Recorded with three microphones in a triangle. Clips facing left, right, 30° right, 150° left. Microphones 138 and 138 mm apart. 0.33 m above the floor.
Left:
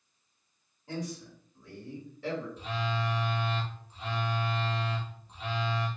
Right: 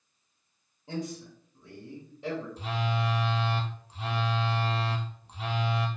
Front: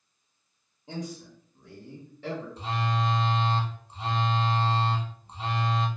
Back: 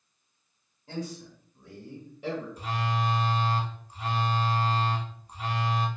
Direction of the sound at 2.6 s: 95° right.